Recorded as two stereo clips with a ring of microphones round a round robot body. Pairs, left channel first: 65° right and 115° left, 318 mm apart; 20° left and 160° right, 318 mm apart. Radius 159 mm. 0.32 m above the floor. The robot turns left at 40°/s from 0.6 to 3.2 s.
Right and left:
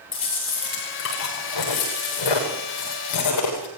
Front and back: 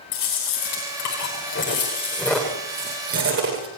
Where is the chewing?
Straight ahead, 9 m; by 3.7 s 100° right, 9 m.